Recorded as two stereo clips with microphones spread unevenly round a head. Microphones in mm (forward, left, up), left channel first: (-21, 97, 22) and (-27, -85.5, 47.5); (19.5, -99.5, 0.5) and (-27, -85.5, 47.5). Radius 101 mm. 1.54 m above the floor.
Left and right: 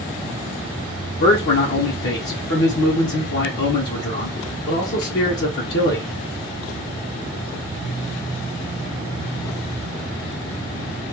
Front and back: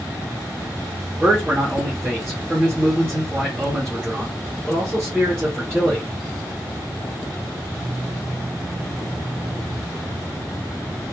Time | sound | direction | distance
1.2 | a man speaking | 120° left | 0.7 m